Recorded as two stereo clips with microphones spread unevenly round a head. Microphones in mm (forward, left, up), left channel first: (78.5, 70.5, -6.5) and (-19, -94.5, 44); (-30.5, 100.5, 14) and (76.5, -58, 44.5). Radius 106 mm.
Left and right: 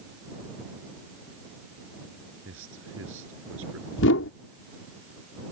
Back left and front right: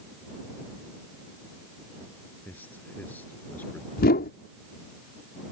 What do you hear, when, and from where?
2.5 s a man speaking: 155° right
4.0 s a whoosh: 85° left